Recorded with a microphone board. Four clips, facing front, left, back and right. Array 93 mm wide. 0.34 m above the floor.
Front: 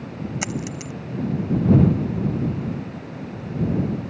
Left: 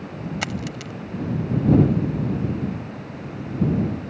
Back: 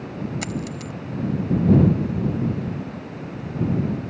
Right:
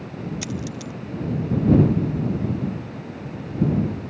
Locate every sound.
0.4 s a dropped coin: 75° left